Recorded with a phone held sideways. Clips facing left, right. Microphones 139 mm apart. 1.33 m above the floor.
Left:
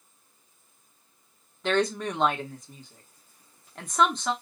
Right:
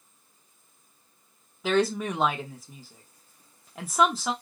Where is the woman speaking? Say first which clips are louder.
Right 1 dB; 5° right (ahead or behind), 0.8 m.